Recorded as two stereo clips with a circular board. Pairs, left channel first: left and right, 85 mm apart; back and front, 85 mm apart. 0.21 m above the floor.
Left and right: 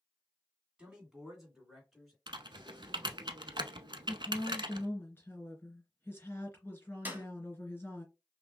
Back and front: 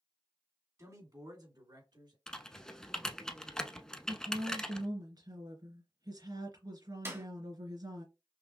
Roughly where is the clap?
Ahead right.